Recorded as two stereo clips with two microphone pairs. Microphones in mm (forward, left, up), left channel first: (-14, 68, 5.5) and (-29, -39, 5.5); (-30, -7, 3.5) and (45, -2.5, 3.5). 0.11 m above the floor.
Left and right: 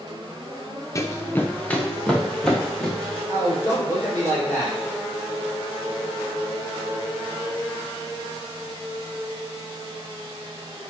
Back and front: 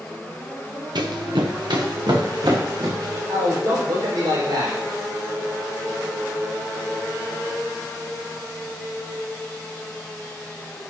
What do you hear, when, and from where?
0.9 s running footsteps: 25° left, 1.0 m; by 3.2 s 5° right, 3.5 m
3.3 s a man speaking: 15° left, 4.5 m